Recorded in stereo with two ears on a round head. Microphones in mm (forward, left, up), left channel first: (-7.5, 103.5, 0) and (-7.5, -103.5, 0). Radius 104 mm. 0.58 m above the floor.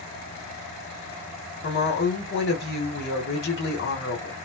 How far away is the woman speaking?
About 1.6 m.